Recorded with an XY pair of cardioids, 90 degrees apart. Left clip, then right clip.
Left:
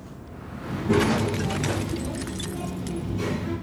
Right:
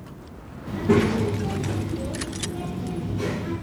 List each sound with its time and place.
0.7 s a child speaking: 70° right, 0.9 m; by 3.5 s 10° left, 3 m